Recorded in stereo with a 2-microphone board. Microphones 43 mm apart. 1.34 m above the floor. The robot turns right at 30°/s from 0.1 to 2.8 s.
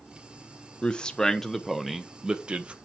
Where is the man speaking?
150° left, 0.8 m; by 2.8 s 150° right, 0.8 m.